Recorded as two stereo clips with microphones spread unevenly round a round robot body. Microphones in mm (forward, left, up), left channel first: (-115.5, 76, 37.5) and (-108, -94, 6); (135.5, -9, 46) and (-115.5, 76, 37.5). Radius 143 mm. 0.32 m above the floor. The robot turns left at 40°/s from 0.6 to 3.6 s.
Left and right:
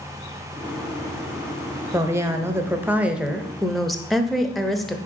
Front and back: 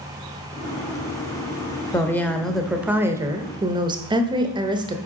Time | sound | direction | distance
1.9 | a woman speaking | 90° right | 0.9 m